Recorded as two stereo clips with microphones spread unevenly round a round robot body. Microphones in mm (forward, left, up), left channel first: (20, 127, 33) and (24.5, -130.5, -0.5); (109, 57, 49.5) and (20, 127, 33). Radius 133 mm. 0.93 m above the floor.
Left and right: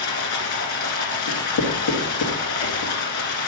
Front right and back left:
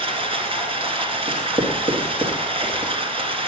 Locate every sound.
0.0 s running water: 105° left, 1.9 m
1.3 s writing: 90° left, 1.7 m